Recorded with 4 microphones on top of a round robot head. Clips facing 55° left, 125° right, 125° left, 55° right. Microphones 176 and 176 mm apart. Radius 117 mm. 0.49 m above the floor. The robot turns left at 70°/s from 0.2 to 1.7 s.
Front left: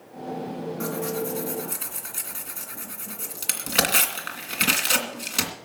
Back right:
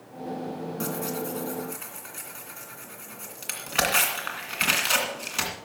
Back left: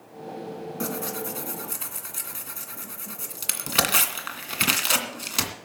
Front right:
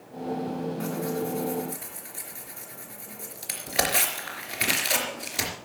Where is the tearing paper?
170° left, 2 m; by 5.5 s 110° left, 2 m.